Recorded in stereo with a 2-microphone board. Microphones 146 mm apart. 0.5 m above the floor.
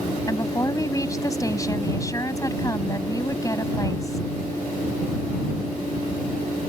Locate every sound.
0.3 s a woman speaking: 25° left (ahead or behind)